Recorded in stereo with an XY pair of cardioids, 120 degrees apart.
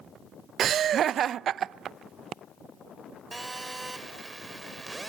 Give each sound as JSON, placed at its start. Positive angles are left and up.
{"t": 0.6, "sound": "laughter", "azimuth_deg": -55, "distance_m": 0.5}
{"t": 3.3, "sound": "a phone buzzing", "azimuth_deg": -15, "distance_m": 3.0}